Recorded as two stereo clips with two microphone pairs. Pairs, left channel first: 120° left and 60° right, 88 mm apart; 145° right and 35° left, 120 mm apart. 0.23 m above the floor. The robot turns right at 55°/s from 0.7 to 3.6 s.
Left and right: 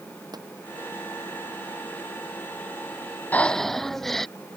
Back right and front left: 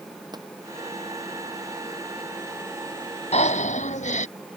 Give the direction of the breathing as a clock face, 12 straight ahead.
6 o'clock.